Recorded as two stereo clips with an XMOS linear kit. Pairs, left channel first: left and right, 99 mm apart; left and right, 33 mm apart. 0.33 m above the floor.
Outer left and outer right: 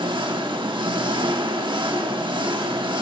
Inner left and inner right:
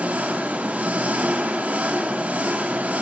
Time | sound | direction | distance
0.0 | an engine running | 55° right (ahead or behind) | 1.0 m